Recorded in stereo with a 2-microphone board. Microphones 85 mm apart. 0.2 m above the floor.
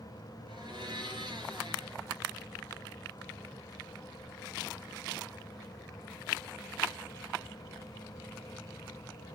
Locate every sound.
0.5 s a blender: 65° right (ahead or behind), 3.5 m